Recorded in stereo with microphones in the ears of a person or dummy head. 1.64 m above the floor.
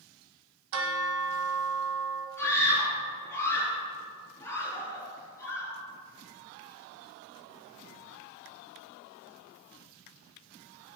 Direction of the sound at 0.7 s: 60° right (ahead or behind).